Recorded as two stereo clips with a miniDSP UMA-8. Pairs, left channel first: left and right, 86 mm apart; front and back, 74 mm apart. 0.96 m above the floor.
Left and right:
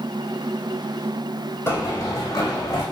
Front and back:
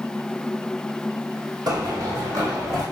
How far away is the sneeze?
No sneeze in this recording.